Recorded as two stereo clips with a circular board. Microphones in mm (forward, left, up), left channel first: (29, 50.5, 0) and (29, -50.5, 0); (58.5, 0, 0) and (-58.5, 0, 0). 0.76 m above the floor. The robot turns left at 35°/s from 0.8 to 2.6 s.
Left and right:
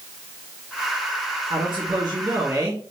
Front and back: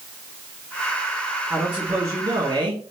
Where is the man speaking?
115° right, 1.6 m; by 2.9 s 155° right, 1.6 m.